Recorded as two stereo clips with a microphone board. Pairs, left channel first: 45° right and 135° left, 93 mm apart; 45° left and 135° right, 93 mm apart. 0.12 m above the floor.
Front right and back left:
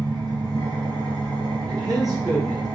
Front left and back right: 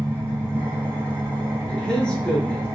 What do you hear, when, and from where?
0.0 s an engine running: 160° left, 1.6 m
1.7 s a man speaking: 120° left, 1.5 m